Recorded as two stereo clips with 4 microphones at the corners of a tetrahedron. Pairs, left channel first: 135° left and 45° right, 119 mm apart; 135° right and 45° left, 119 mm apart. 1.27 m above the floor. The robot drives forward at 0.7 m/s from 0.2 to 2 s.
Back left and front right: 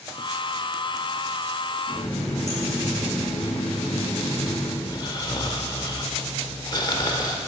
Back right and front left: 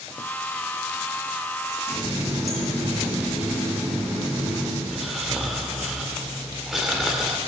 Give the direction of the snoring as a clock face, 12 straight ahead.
8 o'clock.